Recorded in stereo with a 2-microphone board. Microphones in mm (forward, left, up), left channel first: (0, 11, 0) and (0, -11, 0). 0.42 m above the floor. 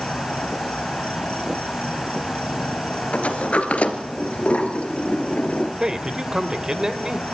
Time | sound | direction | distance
0.0 | an insect | 70° left (ahead or behind) | 2.5 m
3.1 | a sliding door | 80° left | 2.0 m
5.8 | a man speaking | 30° right (ahead or behind) | 1.7 m